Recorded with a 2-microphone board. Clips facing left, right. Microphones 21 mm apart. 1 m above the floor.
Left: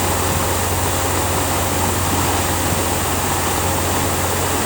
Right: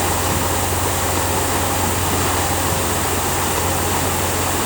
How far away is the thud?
I don't hear a thud.